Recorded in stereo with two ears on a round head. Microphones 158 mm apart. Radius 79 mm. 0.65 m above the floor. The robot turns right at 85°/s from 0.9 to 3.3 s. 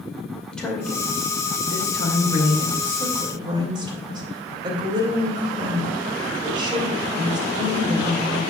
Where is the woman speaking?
5° left, 2.5 m; by 8.4 s 150° right, 2.5 m.